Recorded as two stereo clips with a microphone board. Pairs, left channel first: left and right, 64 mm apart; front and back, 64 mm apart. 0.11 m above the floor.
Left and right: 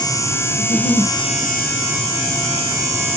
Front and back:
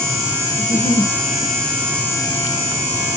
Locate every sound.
0.6 s a giggle: 30° right, 3 m